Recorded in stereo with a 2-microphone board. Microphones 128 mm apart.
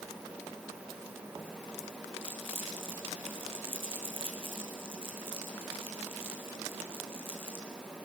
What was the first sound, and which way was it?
Crumpling, 45° right (ahead or behind).